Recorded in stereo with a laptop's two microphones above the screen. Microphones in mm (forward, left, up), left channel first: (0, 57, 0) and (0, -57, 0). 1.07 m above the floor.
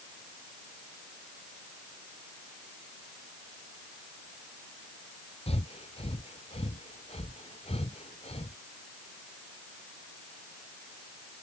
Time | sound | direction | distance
5.5 | breathing | 55° left (ahead or behind) | ?